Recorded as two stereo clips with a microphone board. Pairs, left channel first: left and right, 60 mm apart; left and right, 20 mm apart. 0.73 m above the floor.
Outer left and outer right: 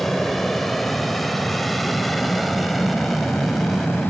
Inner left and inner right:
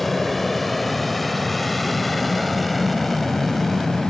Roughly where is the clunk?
No clunk in this recording.